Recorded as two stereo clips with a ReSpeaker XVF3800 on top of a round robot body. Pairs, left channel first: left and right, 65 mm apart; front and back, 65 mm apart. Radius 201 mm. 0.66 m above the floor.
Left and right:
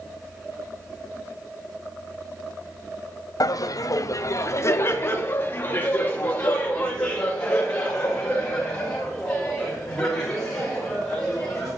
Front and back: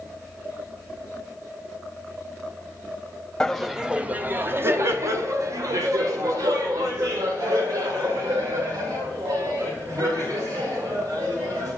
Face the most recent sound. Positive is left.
turn(degrees=170)